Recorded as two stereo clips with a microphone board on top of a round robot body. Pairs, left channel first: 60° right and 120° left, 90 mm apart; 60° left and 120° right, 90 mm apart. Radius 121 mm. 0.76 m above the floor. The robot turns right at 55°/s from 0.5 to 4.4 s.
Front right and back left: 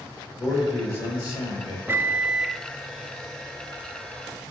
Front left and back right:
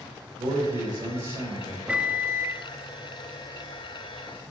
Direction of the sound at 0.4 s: 100° right.